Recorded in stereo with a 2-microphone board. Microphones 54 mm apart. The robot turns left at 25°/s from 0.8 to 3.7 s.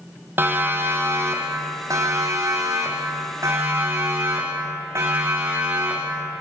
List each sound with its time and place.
0.4 s a siren: 40° right (ahead or behind), 4 m; by 6.2 s 50° right (ahead or behind), 9.5 m